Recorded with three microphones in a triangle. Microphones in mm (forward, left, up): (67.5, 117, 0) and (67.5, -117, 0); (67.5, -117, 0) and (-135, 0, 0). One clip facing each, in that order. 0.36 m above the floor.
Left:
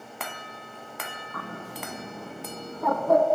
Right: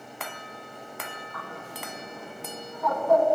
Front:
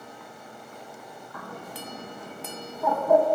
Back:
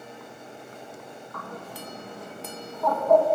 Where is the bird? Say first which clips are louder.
Left 6 dB, even; 50° left, 0.5 m.